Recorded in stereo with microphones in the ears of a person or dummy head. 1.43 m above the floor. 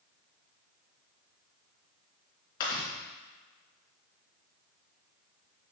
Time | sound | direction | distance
2.6 | chewing | 50° left (ahead or behind) | 3 m